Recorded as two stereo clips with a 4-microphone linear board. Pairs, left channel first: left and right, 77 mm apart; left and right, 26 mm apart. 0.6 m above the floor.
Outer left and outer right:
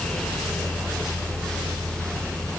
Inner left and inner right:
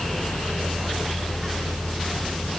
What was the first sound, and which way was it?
Only background noise.